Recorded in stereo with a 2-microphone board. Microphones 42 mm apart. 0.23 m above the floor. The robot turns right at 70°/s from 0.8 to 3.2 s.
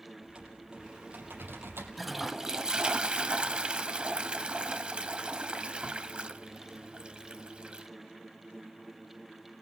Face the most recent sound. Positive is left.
turn(degrees=-25)  # may be behind; listen again after turning